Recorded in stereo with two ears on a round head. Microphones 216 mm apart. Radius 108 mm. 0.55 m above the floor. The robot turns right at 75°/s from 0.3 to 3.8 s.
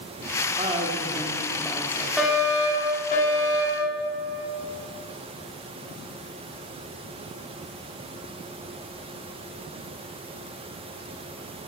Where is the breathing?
No breathing in this recording.